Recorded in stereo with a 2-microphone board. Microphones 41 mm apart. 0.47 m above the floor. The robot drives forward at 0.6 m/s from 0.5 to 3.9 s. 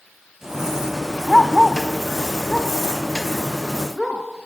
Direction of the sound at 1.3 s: 10° left (ahead or behind).